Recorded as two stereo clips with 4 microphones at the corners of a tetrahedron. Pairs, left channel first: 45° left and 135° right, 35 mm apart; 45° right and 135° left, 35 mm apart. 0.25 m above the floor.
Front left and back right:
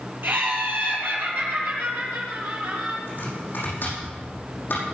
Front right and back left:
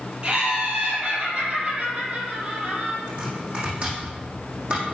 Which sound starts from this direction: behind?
Laughter, at 0.2 s.